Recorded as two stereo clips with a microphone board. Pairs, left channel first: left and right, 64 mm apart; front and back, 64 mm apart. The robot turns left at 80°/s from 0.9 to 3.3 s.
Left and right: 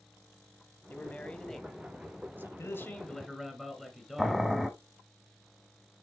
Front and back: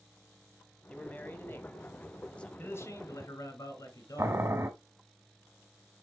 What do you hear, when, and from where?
0.9 s a man speaking: 60° left, 1.2 m; by 2.5 s 65° right, 1.2 m
2.6 s a man speaking: 55° left, 1.9 m; by 4.5 s straight ahead, 1.9 m
4.2 s boiling: 175° right, 1.1 m